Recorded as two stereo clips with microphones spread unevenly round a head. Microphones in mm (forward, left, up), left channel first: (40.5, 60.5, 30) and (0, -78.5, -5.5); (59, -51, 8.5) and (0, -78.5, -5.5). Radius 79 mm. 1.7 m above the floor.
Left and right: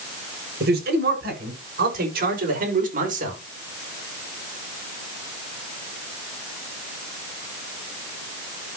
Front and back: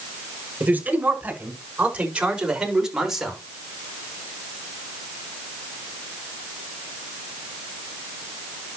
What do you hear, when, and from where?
0.6 s a man speaking: 90° right, 7 m; by 3.4 s 65° right, 5 m